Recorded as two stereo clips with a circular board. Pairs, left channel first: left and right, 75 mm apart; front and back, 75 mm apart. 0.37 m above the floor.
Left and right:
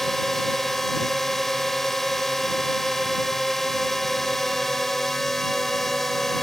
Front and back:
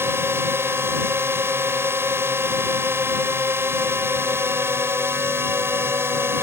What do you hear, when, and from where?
0.0 s a drone: 175° left